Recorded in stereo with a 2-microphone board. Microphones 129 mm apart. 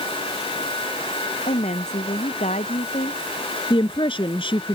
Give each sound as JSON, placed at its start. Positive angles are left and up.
{"t": 1.5, "sound": "a woman speaking", "side_deg": 65}
{"t": 3.7, "sound": "a woman speaking", "side_deg": 40}